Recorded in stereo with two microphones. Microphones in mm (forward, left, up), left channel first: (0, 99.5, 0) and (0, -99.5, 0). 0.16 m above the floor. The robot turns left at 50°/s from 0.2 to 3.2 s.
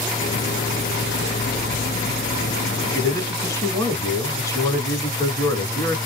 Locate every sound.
2.9 s a man speaking: 20° left (ahead or behind), 1.7 m; by 6.0 s 15° left (ahead or behind), 1.7 m